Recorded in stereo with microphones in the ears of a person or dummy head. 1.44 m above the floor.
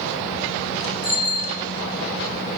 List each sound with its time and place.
1.0 s a bicycle bell: 25° left (ahead or behind), 9 m